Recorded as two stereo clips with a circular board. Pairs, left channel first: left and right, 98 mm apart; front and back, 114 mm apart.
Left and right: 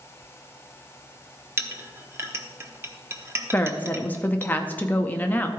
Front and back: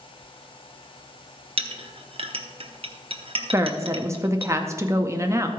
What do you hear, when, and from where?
1.6 s a clink: 155° right, 0.9 m
3.5 s a woman speaking: 145° left, 0.6 m